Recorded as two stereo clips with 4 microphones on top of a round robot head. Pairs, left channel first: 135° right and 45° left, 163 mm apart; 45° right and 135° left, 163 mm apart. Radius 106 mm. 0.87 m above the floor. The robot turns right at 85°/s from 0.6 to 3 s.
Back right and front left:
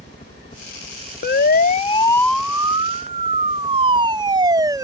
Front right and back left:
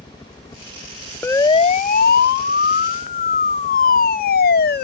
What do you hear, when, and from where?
0.0 s a helicopter: 105° right; by 4.8 s 140° left
1.2 s a siren: 125° right; by 4.8 s 25° right